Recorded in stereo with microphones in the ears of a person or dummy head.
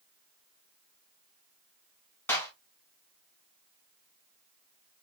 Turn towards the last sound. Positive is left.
turn(degrees=10)  # may be behind; listen again after turning